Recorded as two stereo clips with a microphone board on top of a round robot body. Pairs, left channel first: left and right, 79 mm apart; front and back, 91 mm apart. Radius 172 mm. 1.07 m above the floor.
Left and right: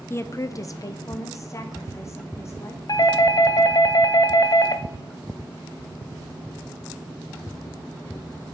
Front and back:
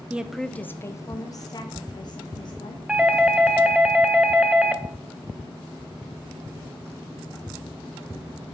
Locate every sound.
0.1 s a woman speaking: 120° left, 0.7 m; by 2.8 s 35° left, 2 m
2.9 s a doorbell: 105° left, 0.7 m